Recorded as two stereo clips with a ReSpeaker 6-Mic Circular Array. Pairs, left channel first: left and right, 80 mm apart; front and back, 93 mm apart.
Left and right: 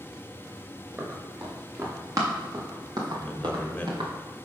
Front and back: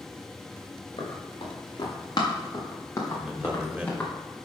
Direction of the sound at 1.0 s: 30° right.